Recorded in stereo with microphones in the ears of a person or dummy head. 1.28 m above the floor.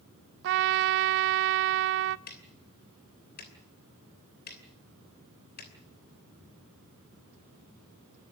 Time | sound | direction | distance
0.4 | a trumpet | 60° right (ahead or behind) | 0.5 m
2.3 | ticking | 50° left (ahead or behind) | 3 m